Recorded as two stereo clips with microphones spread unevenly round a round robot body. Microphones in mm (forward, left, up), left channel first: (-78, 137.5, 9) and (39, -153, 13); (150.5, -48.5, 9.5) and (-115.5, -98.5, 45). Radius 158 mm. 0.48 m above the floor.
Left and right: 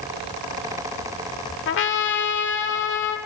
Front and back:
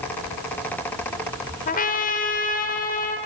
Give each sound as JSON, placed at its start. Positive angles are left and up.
{"t": 1.7, "sound": "a trumpet", "azimuth_deg": 65, "distance_m": 1.1}